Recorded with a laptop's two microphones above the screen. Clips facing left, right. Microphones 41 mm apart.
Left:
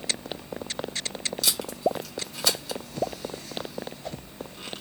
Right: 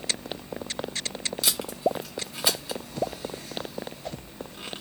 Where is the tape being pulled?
15° right (ahead or behind), 1.0 m.